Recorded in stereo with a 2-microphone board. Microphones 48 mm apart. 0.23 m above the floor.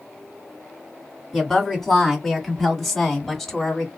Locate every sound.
1.3 s a woman speaking: 5° left (ahead or behind), 2 m; by 3.9 s 10° left (ahead or behind), 1.4 m